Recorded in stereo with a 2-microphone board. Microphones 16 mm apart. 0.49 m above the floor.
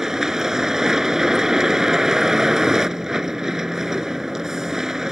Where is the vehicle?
30° right (ahead or behind).